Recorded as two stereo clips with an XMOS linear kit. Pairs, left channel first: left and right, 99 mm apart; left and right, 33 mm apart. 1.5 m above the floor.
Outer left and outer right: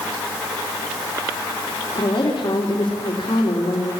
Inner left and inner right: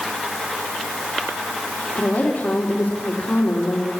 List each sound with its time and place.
1.9 s a woman speaking: 55° left (ahead or behind), 4 m